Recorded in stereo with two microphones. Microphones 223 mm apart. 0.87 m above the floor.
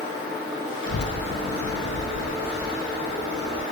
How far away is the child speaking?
About 0.6 m.